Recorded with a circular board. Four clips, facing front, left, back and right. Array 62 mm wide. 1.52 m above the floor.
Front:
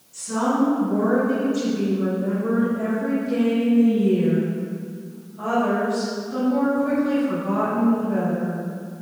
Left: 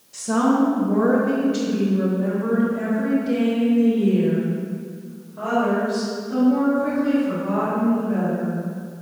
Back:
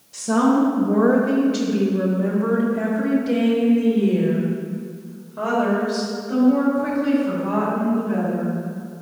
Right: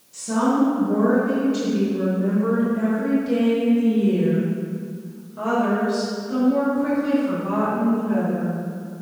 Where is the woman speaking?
160° left, 1.4 m; by 8.6 s 160° right, 5.5 m.